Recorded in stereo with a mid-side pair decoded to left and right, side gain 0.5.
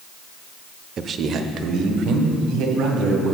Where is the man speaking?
45° right, 0.6 m; by 3.4 s 70° right, 2.5 m.